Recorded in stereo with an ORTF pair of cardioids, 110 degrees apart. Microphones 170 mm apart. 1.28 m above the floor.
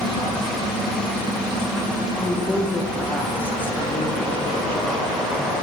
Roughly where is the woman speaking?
Ahead.